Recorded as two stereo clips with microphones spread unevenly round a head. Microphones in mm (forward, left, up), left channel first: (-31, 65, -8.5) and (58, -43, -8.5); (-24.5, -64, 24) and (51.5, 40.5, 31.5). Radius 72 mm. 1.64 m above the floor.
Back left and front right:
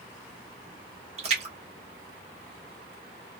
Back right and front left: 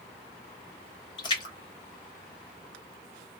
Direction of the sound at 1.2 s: 75° right.